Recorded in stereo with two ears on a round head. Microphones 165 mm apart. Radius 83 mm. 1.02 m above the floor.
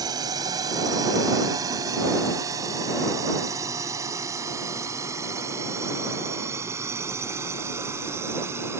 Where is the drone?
20° right (ahead or behind); by 8.8 s 15° right (ahead or behind).